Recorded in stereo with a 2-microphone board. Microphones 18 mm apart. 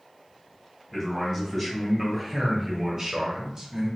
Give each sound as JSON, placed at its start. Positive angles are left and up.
{"t": 0.9, "sound": "a man speaking", "side_deg": 20, "distance_m": 1.5}